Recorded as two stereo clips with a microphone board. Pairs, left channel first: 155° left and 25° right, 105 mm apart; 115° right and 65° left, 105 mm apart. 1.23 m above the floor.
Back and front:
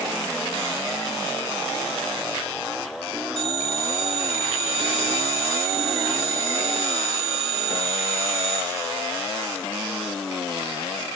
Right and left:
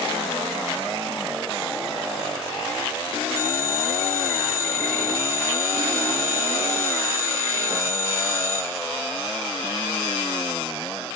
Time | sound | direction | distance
3.4 | a phone ringing | 55° right | 2.5 m